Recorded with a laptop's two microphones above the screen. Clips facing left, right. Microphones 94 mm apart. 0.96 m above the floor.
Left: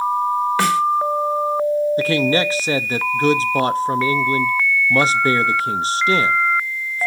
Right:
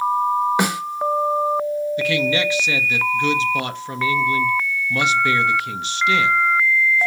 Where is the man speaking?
35° left (ahead or behind), 1.0 m.